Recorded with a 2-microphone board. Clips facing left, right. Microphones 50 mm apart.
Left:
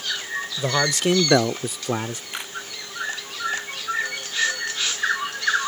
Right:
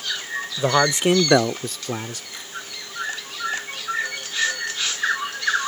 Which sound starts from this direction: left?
A camera shutter, at 2.3 s.